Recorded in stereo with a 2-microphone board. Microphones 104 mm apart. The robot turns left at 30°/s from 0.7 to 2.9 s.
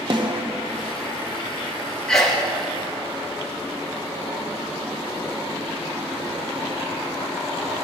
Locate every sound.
0.1 s a snare drum: 45° right (ahead or behind), 0.7 m
2.1 s a sneeze: 5° left (ahead or behind), 1.3 m; by 2.4 s 5° right (ahead or behind), 1.3 m